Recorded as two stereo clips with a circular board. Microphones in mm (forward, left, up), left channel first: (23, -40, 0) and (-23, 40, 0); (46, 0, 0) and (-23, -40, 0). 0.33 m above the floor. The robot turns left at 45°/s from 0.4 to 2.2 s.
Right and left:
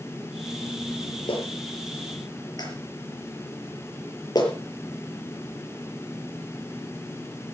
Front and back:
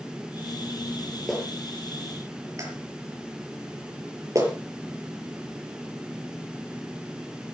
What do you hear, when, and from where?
1.3 s a clap: 60° right, 5 m; by 4.5 s 100° right, 5 m